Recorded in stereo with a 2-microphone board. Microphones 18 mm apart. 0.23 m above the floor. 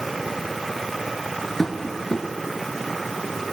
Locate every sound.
1.6 s tapping: 20° left (ahead or behind), 4 m